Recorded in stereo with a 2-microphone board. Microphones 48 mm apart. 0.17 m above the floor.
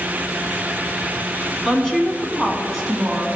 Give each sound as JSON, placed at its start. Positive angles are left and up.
{"t": 1.6, "sound": "a woman speaking", "side_deg": 10, "distance_m": 1.2}